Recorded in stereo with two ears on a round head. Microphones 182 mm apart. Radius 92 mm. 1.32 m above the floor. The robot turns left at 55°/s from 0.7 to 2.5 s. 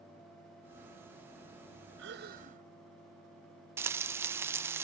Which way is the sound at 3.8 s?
10° right (ahead or behind).